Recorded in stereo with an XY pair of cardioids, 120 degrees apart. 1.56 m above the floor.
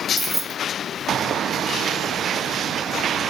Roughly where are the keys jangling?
Ahead.